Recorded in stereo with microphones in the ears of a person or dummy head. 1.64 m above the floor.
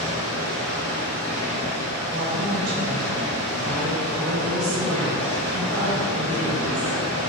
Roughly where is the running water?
Right.